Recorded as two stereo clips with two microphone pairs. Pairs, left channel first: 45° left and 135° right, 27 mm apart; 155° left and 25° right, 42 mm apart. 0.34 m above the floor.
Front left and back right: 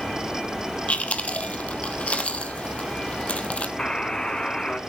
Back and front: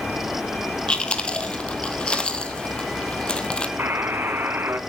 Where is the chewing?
85° left, 1.6 m.